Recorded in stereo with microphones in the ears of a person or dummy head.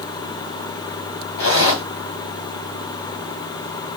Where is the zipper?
70° left (ahead or behind), 1.3 m.